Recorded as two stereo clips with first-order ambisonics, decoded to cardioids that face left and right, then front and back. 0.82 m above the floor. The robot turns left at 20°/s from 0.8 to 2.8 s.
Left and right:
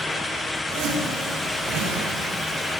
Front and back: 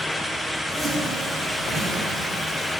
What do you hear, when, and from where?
0.7 s a zipper: 80° right, 1.7 m; by 2.1 s 105° right, 1.7 m